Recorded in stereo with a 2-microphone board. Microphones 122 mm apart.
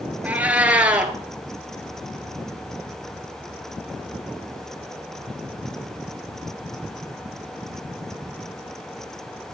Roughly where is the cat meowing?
Centre.